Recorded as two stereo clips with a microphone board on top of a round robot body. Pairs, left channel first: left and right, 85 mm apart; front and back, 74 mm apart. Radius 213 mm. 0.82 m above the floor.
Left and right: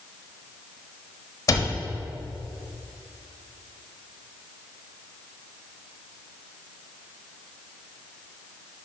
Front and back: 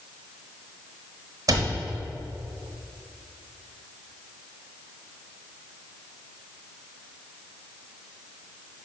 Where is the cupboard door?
140° left, 0.9 m.